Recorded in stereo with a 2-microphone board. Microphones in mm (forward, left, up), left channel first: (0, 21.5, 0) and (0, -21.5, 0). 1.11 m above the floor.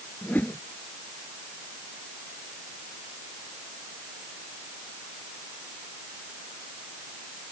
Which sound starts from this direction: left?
A whoosh, at 0.2 s.